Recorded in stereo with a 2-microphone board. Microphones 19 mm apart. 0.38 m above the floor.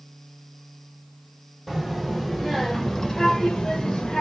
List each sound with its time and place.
1.7 s a child speaking: 5° left (ahead or behind), 1.6 m; by 4.2 s 45° left (ahead or behind), 1.3 m